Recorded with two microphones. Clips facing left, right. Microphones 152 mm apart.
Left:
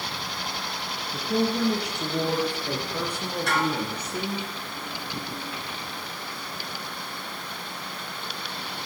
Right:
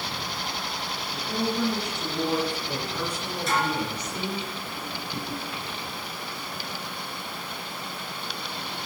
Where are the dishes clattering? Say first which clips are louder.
Even; 70° left (ahead or behind), 2.5 m.